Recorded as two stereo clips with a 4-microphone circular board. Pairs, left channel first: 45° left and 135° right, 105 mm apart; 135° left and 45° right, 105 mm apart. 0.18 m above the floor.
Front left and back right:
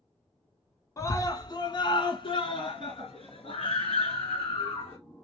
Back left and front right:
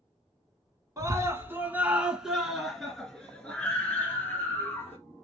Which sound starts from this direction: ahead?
A scream, at 1.0 s.